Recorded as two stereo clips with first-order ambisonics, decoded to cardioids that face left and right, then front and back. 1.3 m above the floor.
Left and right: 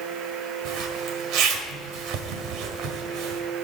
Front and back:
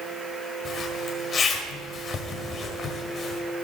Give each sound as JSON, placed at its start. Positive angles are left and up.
{"t": 0.7, "sound": "a zipper", "azimuth_deg": -65, "distance_m": 1.9}